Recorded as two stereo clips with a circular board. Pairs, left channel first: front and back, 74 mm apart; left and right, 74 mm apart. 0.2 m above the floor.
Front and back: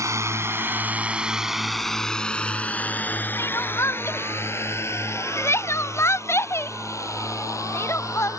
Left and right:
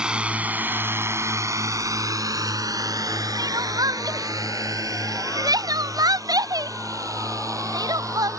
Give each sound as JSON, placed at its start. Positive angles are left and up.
{"t": 0.0, "sound": "a drone", "azimuth_deg": -165}
{"t": 3.4, "sound": "crying", "azimuth_deg": -55}